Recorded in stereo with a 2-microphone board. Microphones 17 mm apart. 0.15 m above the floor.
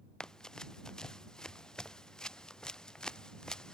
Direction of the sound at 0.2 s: 40° left (ahead or behind).